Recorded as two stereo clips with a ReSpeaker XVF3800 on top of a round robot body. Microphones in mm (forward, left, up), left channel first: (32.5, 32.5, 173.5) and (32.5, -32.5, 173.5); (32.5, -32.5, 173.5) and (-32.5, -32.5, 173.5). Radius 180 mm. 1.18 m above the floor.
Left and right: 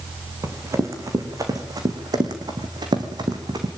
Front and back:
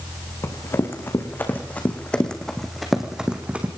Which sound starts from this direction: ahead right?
Running footsteps, at 0.4 s.